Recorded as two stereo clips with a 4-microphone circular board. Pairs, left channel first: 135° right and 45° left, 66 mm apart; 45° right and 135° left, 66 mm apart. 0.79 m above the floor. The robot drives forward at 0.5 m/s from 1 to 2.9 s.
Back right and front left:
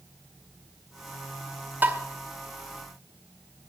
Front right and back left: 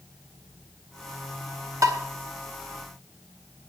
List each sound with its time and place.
1.8 s tapping: 105° left, 1.7 m